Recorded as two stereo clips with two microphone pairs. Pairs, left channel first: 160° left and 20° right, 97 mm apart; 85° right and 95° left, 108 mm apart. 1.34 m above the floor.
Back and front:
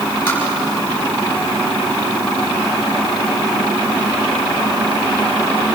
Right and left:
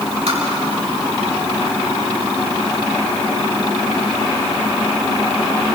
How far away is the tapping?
About 6 m.